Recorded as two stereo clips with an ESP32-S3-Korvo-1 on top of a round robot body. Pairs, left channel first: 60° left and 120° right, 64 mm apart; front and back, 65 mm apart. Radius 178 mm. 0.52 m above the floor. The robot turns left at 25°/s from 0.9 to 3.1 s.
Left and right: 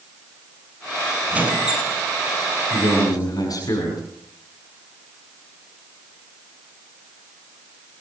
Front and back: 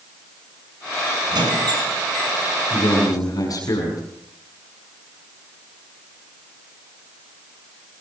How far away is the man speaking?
About 7 m.